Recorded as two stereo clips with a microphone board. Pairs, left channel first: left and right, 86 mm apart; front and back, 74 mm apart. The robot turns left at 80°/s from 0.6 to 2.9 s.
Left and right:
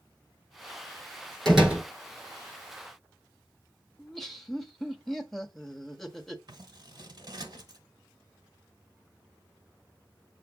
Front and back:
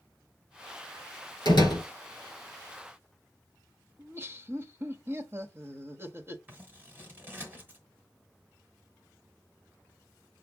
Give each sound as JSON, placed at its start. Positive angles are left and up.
{"t": 1.4, "sound": "a door slam", "azimuth_deg": 5, "distance_m": 4.0}
{"t": 4.0, "sound": "laughter", "azimuth_deg": 175, "distance_m": 1.0}
{"t": 6.5, "sound": "scissors", "azimuth_deg": -120, "distance_m": 1.6}